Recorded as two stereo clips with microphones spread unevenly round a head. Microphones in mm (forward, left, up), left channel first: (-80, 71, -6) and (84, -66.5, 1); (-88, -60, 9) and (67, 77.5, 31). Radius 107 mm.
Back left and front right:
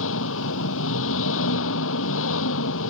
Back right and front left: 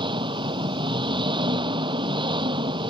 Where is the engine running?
110° left.